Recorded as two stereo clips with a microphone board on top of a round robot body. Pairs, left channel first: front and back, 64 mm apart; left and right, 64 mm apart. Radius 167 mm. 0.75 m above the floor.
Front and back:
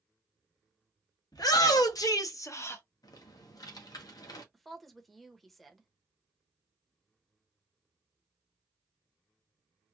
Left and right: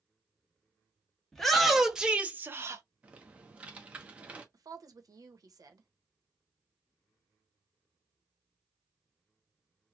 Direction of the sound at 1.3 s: 5° left.